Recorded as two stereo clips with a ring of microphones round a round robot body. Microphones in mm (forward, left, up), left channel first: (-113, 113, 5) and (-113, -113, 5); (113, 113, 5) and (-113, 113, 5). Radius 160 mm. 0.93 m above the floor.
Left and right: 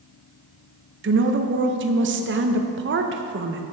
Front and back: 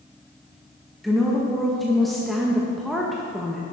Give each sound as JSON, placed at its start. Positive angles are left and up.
{"t": 1.0, "sound": "a woman speaking", "azimuth_deg": -90, "distance_m": 0.6}